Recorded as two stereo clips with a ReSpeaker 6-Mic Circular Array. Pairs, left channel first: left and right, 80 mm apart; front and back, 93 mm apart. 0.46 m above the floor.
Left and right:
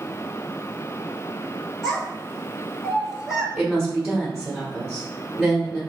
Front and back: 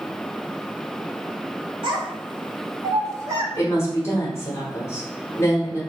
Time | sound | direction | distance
1.8 | a child speaking | 175° left | 1.7 m
3.5 | a woman speaking | 20° right | 1.2 m